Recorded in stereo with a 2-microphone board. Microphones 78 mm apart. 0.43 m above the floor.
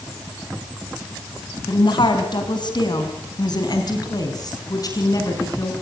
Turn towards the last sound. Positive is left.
turn(degrees=45)  # may be behind; listen again after turning